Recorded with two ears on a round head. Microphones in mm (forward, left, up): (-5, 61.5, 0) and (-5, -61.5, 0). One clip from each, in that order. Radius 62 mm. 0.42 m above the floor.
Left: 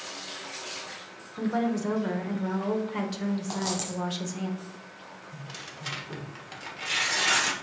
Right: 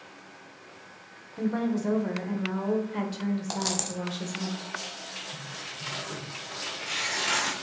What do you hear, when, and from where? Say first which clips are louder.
1.4 s a woman speaking: left 1 dB; 15° left (ahead or behind), 1.1 m
3.5 s a dropped coin: right 2 dB; 40° right (ahead or behind), 1.1 m
5.3 s tearing paper: right 3 dB; 15° left (ahead or behind), 1.2 m